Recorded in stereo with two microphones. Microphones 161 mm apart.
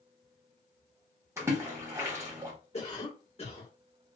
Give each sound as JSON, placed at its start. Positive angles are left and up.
{"t": 1.4, "sound": "a splash", "side_deg": -15, "distance_m": 1.3}
{"t": 2.7, "sound": "a cough", "side_deg": 35, "distance_m": 1.4}